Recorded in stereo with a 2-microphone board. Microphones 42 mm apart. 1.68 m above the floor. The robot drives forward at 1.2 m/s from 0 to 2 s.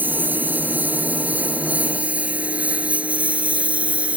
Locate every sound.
0.0 s a lawn mower: 50° right (ahead or behind); by 4.2 s 35° right (ahead or behind)